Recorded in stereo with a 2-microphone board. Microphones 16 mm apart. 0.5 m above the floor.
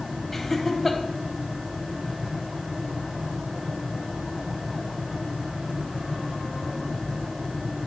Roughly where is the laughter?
Centre.